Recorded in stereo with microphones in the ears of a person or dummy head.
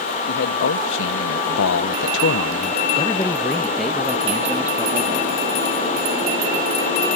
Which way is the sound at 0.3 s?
60° left (ahead or behind).